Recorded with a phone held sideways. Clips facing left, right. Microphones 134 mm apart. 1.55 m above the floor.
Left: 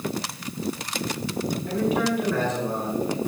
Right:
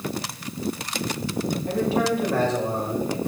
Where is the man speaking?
30° right (ahead or behind), 7 m; by 3.2 s 35° right (ahead or behind), 6 m.